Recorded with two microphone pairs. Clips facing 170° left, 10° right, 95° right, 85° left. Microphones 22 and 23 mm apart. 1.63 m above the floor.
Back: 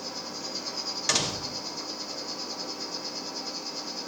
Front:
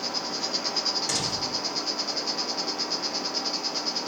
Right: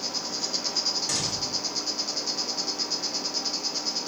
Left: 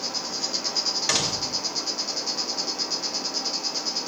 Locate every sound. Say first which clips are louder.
0.0 s an insect: front 6 dB, left 1 dB; 5° right, 1.6 m
1.1 s a door slam: even, left 3 dB; 115° left, 1.5 m